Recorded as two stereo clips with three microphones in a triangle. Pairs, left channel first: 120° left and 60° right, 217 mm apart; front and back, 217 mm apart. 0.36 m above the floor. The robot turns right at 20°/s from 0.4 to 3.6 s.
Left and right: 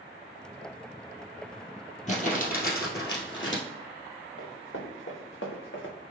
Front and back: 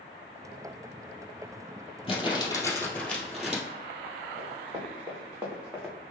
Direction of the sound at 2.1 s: 65° left.